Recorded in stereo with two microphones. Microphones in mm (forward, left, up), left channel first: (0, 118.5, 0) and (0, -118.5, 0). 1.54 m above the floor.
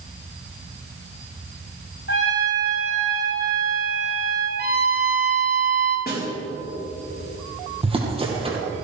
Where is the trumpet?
50° left (ahead or behind), 3.5 m.